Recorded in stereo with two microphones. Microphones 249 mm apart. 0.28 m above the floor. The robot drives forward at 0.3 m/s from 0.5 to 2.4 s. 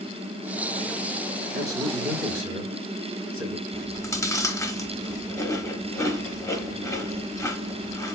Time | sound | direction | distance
1.5 | a man speaking | 35° right (ahead or behind) | 3 m
3.7 | chewing | 15° left (ahead or behind) | 0.7 m